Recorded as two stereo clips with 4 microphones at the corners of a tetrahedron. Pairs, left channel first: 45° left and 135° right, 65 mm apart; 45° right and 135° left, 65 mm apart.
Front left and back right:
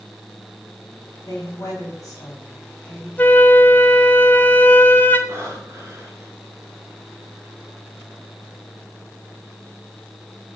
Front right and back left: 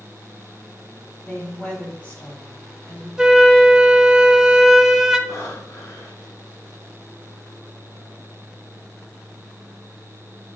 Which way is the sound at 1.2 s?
15° left.